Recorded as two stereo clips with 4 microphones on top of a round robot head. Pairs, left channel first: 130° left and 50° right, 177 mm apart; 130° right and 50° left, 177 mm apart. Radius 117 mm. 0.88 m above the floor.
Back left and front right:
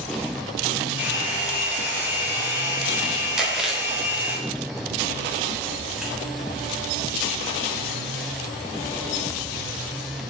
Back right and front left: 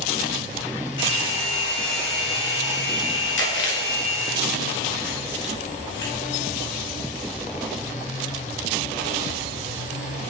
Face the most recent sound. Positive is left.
turn(degrees=-135)